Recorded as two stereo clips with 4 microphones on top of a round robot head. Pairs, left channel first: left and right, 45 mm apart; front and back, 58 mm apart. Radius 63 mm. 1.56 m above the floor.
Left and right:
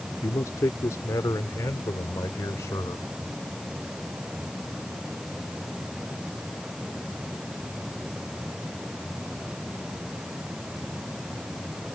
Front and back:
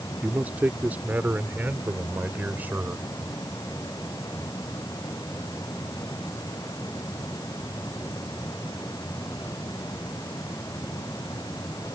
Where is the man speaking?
120° left.